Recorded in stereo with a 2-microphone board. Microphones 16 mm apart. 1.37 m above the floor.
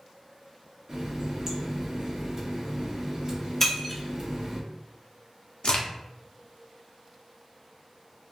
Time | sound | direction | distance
0.9 | a running tap | 35° right (ahead or behind) | 0.7 m
3.6 | breaking glass | 15° left (ahead or behind) | 0.8 m
5.6 | a crack | 70° left (ahead or behind) | 0.5 m